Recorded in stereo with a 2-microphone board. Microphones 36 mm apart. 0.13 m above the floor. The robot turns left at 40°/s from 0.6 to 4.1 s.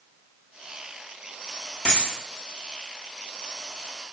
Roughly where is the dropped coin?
Left.